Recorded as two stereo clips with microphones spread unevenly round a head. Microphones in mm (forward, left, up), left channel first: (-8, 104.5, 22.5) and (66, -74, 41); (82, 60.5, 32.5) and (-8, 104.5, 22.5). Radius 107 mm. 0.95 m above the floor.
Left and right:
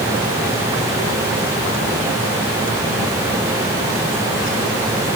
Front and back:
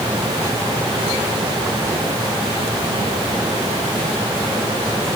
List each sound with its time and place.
Only background noise.